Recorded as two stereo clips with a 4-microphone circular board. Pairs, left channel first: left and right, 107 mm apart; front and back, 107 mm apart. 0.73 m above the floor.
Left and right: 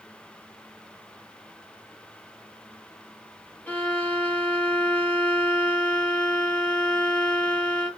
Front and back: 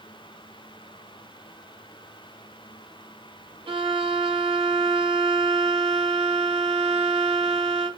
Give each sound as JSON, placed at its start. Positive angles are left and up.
{"t": 3.7, "sound": "a violin", "azimuth_deg": 165, "distance_m": 0.6}